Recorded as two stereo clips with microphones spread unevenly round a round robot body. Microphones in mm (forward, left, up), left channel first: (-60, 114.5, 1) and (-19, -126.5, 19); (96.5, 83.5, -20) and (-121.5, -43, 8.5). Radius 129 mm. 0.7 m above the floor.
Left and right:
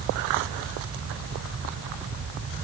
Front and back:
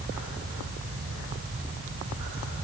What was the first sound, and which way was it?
Only background noise.